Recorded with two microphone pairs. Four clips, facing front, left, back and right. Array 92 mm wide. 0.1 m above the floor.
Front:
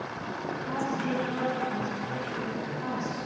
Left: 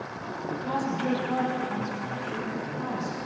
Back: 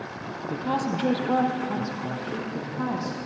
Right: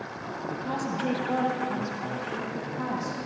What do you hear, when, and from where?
0.5 s a woman speaking: 170° left, 3.5 m; by 3.2 s 155° right, 6.5 m